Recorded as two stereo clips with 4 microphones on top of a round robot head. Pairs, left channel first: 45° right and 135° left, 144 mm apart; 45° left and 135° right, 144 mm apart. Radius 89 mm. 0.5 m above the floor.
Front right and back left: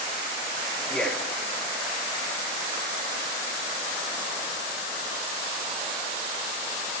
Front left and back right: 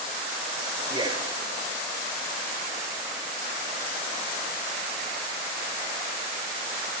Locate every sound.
0.9 s a man speaking: 125° right, 1.1 m